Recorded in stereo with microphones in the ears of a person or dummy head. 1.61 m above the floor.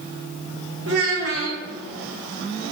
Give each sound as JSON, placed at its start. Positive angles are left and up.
{"t": 0.9, "sound": "a child speaking", "side_deg": -60, "distance_m": 0.8}